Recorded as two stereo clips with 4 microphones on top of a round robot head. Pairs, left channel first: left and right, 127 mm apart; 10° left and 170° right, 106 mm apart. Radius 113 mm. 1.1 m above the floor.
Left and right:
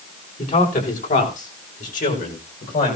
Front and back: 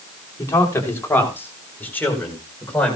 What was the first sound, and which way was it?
A man speaking, 75° left.